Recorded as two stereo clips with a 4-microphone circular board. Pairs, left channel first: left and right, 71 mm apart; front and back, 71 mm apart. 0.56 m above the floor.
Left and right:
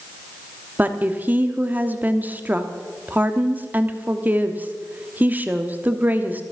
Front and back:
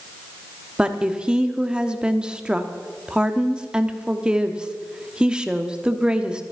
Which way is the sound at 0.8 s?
120° right.